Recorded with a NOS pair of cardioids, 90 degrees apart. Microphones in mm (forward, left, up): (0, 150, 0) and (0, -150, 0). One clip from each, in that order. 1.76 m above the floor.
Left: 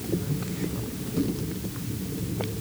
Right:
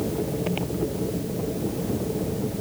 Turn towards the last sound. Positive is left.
No sound to turn to.